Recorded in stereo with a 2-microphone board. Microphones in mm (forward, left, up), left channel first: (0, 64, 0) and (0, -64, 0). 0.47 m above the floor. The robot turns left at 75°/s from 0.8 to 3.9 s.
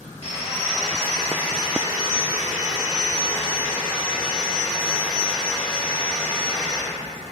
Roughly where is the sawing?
Ahead left.